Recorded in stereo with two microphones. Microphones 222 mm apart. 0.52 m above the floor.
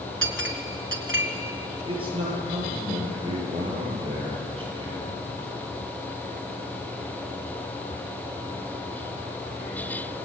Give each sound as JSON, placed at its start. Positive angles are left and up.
{"t": 0.2, "sound": "a clink", "side_deg": -65, "distance_m": 2.5}
{"t": 1.9, "sound": "a man speaking", "side_deg": -25, "distance_m": 9.5}